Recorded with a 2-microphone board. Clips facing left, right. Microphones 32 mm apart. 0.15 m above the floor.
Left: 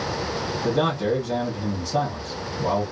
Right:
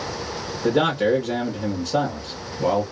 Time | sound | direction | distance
0.6 | a man speaking | 60° right (ahead or behind) | 2.5 m